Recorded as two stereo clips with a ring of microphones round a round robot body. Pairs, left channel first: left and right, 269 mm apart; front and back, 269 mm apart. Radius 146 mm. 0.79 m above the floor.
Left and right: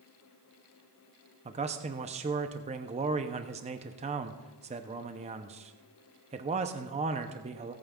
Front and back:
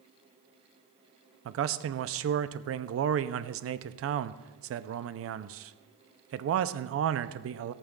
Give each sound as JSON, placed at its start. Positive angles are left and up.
{"t": 1.4, "sound": "a man speaking", "azimuth_deg": -155, "distance_m": 0.6}